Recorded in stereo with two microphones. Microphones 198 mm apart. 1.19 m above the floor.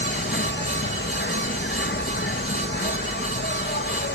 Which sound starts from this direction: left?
An insect, at 0.0 s.